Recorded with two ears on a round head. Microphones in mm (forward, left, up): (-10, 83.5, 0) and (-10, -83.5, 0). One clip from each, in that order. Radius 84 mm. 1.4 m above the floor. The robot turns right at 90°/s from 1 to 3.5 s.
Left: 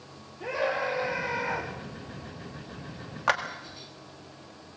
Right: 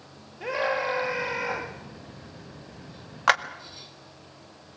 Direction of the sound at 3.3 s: 35° right (ahead or behind).